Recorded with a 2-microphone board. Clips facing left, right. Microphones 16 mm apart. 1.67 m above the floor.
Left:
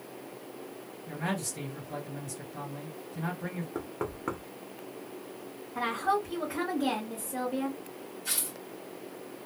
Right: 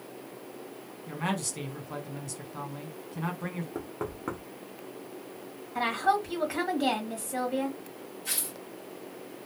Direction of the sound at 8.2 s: 10° left (ahead or behind).